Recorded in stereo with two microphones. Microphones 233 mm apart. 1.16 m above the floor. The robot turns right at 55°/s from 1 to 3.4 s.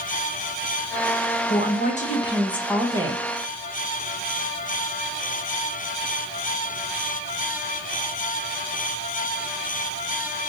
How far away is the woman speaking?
About 1.1 m.